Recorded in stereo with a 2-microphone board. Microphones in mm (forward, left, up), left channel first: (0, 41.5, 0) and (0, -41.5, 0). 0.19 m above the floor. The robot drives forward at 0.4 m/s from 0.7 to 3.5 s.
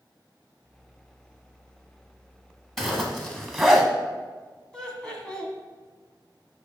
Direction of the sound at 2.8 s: 5° left (ahead or behind).